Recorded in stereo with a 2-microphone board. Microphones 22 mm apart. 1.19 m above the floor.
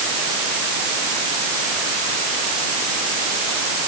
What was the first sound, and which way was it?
Only background noise.